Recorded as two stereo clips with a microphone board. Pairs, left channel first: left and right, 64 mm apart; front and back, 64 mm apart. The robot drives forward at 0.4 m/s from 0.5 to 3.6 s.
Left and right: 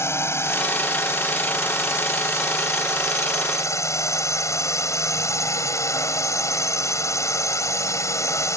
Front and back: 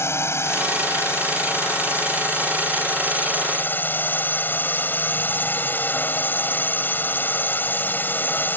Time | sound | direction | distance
0.0 | a drone | 45° left | ?